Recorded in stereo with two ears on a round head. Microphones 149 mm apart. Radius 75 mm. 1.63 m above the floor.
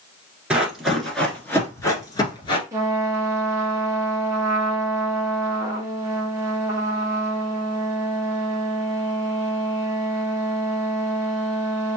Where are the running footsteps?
5° right (ahead or behind), 1.6 m; by 2.6 s 30° left (ahead or behind), 1.8 m.